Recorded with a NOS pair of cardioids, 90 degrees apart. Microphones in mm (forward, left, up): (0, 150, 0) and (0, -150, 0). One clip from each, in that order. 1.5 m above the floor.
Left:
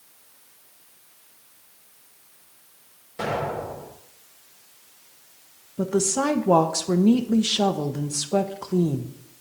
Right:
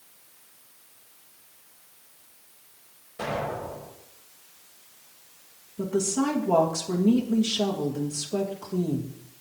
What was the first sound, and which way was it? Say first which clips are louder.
An explosion: left 3 dB; 60° left.